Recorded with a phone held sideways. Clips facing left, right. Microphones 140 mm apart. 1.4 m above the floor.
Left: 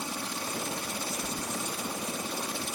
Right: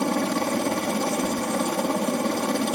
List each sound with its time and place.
0.0 s a helicopter: 70° right (ahead or behind)
1.2 s keys jangling: 65° right (ahead or behind)